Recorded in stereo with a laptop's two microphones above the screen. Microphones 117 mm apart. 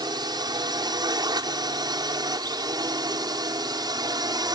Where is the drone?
40° right (ahead or behind); by 4.5 s 35° right (ahead or behind).